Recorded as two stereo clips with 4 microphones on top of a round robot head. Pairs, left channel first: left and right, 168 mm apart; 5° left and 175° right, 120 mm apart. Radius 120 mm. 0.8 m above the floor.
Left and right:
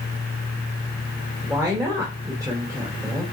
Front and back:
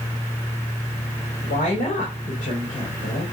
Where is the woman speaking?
20° right, 3.5 m.